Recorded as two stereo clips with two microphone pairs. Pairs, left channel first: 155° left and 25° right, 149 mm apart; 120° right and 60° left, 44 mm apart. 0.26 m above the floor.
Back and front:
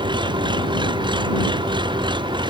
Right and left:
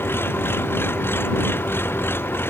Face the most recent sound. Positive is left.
turn(degrees=-85)